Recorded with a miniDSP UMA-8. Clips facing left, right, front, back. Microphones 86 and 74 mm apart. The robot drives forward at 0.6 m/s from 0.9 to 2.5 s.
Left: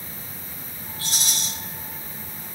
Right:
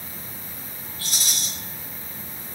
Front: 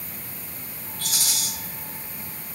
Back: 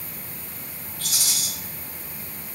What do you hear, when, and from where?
1.0 s a rattle: 25° left, 1.3 m; by 1.5 s 35° left, 1.1 m